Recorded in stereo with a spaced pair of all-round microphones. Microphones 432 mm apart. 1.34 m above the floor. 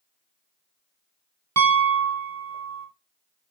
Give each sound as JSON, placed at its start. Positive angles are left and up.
{"t": 1.6, "sound": "a piano", "side_deg": -40, "distance_m": 0.8}